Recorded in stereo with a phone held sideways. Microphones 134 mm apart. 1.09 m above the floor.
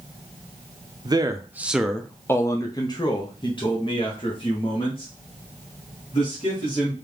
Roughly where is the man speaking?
Right.